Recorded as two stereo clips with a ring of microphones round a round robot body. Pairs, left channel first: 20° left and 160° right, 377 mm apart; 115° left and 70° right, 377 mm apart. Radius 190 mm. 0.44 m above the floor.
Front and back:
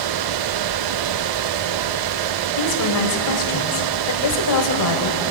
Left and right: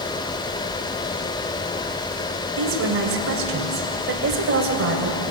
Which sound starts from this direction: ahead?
A woman speaking, at 2.6 s.